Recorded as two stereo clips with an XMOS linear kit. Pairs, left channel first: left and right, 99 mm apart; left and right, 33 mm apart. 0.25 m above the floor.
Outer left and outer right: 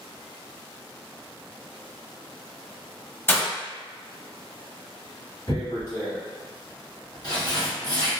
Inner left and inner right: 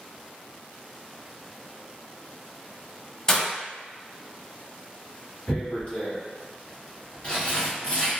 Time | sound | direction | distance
3.3 | breaking glass | 20° left (ahead or behind) | 0.8 m
5.5 | tearing paper | 45° left (ahead or behind) | 1.3 m